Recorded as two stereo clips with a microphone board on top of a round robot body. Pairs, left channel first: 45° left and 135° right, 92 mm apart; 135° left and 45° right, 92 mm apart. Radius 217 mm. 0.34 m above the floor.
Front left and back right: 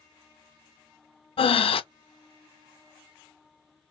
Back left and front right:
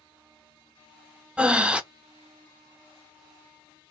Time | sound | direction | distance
1.4 | breathing | 35° left | 0.6 m